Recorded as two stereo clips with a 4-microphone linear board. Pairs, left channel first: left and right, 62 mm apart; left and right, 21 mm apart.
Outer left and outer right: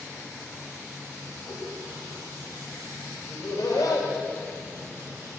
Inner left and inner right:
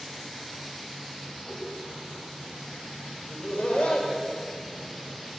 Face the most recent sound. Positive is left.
turn(degrees=70)  # may be behind; listen again after turning